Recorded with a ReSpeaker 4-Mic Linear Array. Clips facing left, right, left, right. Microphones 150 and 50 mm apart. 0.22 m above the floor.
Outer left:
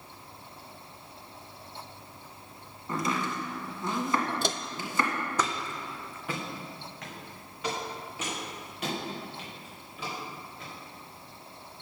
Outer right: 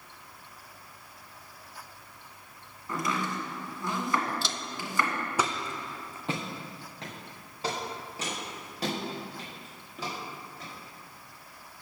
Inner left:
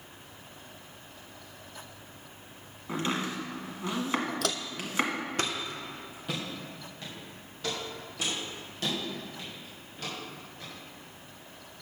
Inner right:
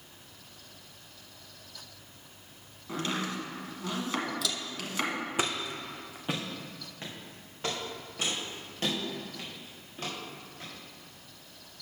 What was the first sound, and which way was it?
Chopping, 25° left (ahead or behind).